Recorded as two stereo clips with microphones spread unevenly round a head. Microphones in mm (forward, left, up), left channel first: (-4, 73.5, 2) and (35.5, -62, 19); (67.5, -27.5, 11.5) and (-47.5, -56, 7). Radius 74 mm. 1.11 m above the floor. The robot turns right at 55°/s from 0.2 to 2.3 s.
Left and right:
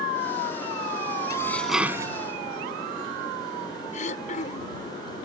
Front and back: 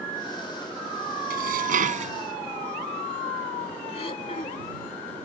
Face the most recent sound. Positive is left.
turn(degrees=70)